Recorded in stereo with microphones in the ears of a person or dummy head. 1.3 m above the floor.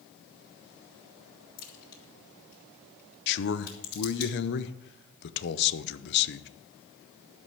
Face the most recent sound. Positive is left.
turn(degrees=55)  # may be behind; listen again after turning